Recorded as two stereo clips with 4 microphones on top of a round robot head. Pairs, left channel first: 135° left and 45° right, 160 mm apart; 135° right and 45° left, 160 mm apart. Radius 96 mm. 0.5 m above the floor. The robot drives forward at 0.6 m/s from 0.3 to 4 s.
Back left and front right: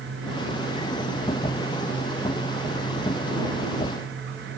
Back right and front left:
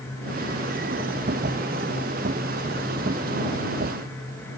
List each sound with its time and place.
Only background noise.